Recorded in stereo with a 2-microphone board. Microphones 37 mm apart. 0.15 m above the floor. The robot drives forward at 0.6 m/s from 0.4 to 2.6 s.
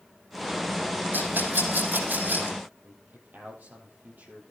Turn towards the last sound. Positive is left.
turn(degrees=-50)  # may be behind; listen again after turning